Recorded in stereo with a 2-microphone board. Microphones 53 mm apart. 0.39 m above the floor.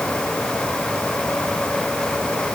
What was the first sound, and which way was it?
Only background noise.